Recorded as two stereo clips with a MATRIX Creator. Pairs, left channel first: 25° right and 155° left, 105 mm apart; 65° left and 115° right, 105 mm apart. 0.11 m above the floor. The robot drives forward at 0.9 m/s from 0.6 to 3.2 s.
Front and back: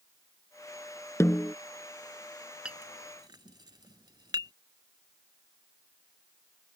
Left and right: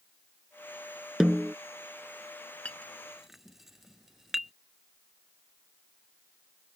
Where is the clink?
100° left; by 4.5 s 160° left.